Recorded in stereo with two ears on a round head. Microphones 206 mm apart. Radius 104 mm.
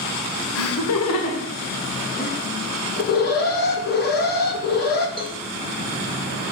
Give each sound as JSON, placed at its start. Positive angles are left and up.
{"t": 0.6, "sound": "laughter", "side_deg": 60, "distance_m": 1.8}
{"t": 3.0, "sound": "an alarm", "side_deg": 40, "distance_m": 1.3}
{"t": 5.2, "sound": "a cowbell", "side_deg": -20, "distance_m": 1.3}